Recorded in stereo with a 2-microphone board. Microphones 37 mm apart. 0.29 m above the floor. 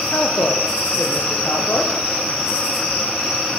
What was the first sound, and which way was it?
A woman speaking, 80° left.